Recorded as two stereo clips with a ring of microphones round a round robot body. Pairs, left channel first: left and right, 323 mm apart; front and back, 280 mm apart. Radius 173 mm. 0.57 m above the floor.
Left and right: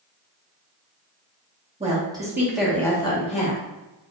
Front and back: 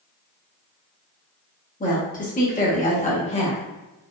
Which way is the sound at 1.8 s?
35° right.